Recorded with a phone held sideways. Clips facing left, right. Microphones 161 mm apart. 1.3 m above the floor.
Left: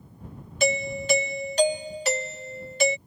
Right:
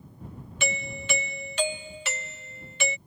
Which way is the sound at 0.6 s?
40° left (ahead or behind).